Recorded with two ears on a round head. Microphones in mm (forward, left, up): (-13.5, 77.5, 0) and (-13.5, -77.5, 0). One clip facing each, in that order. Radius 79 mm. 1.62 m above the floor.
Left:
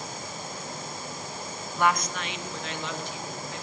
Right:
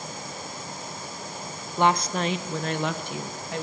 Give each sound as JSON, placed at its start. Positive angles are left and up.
{"t": 1.8, "sound": "a woman speaking", "side_deg": -20, "distance_m": 1.1}